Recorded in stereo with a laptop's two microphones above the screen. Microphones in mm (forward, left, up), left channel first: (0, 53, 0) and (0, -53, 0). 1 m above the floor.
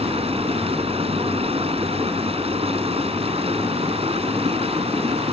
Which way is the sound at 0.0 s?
70° right (ahead or behind).